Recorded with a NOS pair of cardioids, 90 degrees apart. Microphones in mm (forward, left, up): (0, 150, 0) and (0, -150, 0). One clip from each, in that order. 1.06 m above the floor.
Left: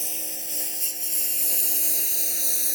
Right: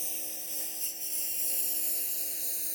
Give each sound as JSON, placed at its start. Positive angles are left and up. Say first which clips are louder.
{"t": 0.0, "sound": "a lawn mower", "louder": "left 7 dB", "azimuth_deg": 50}